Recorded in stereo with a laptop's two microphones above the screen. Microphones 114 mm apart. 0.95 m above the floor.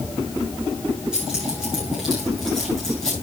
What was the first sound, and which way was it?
Keys jangling, 5° right (ahead or behind).